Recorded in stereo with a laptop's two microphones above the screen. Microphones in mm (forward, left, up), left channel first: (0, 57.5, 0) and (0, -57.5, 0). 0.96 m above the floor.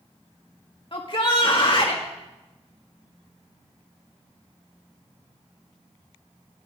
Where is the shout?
50° left (ahead or behind), 1.6 m.